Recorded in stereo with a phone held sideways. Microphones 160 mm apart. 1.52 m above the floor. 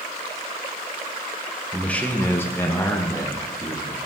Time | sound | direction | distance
1.7 | a man speaking | 5° left (ahead or behind) | 1.2 m